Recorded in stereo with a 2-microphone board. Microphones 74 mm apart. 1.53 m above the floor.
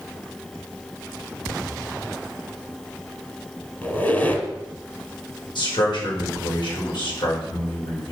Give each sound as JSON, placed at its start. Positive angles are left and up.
{"t": 3.8, "sound": "a squeak", "side_deg": 25, "distance_m": 2.0}
{"t": 5.5, "sound": "a man speaking", "side_deg": 85, "distance_m": 5.0}